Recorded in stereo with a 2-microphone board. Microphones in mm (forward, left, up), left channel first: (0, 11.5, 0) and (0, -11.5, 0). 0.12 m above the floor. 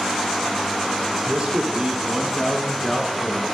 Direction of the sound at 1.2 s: 45° right (ahead or behind).